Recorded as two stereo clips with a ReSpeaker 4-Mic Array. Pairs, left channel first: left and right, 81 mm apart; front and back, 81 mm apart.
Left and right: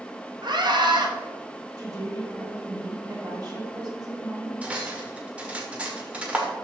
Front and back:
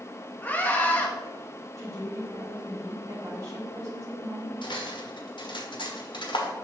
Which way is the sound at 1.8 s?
130° right.